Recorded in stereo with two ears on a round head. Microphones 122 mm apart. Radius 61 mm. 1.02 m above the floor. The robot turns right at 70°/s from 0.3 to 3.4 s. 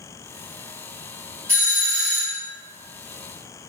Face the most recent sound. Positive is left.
turn(degrees=110)